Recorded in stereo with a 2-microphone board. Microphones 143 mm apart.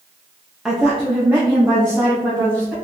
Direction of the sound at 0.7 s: 5° right (ahead or behind).